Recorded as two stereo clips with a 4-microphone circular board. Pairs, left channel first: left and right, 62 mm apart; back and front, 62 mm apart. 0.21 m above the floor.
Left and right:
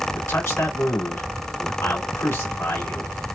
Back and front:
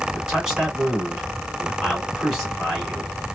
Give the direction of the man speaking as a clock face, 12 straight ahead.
9 o'clock.